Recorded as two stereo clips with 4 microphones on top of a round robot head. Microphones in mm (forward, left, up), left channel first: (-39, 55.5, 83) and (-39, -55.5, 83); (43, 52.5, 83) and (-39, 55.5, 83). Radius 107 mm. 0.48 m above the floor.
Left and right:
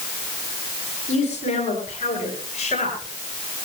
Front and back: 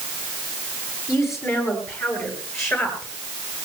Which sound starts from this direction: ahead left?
A woman speaking, at 1.1 s.